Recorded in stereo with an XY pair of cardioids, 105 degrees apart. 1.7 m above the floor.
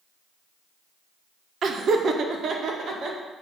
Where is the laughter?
50° right, 0.9 m; by 3.2 s 55° right, 2 m.